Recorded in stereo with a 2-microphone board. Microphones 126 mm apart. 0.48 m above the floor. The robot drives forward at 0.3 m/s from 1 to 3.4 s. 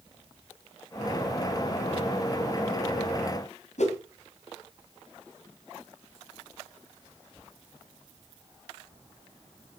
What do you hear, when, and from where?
3.8 s a whoosh: 65° left (ahead or behind), 2.5 m